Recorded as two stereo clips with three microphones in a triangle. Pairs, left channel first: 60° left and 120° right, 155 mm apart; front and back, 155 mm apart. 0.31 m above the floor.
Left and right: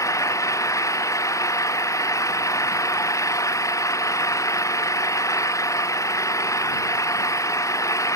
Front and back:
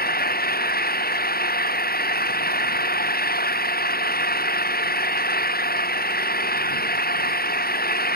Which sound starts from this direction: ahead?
An engine running, at 0.0 s.